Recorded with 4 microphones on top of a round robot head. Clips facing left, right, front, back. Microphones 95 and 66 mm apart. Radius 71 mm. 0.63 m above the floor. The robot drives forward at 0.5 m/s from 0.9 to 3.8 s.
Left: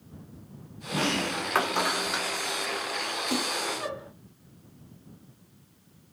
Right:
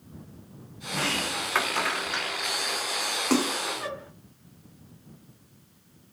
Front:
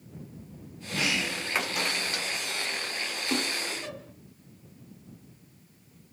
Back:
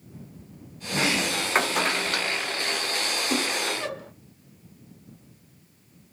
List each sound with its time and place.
0.9 s a sliding door: 145° left, 1.1 m; by 4.1 s 170° left, 2 m
3.3 s a splash: 105° right, 1.0 m; by 3.6 s 110° right, 1.0 m